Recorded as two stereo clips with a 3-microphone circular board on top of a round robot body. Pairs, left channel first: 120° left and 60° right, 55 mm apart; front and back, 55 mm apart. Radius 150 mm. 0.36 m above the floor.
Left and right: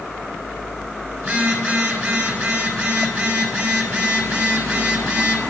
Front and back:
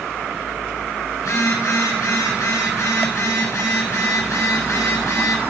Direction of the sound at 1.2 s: 10° right.